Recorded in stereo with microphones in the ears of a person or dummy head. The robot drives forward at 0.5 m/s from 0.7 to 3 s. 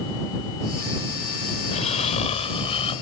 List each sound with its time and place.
1.6 s snoring: 40° left (ahead or behind); by 3.0 s 30° left (ahead or behind)